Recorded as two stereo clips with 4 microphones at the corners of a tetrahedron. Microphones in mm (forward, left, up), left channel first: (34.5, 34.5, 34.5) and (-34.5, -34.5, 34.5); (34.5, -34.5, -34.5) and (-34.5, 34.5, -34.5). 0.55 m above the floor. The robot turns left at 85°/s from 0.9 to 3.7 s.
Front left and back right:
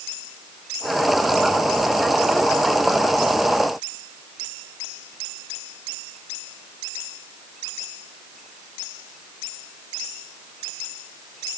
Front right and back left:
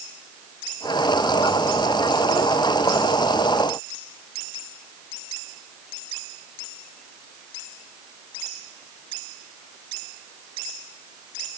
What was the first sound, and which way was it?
Only background noise.